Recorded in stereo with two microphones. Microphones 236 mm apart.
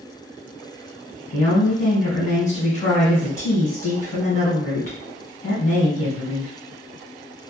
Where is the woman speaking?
30° left (ahead or behind), 1.6 m.